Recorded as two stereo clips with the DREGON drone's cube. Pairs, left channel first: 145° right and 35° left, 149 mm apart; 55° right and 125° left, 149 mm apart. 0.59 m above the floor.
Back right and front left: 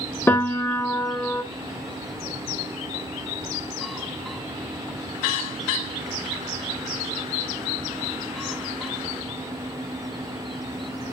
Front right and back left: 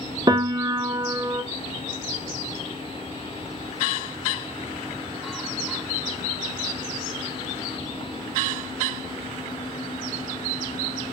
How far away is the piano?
About 1.3 m.